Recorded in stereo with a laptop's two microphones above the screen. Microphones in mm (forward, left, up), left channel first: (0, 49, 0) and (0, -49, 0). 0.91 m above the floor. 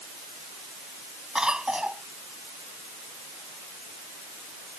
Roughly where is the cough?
Centre.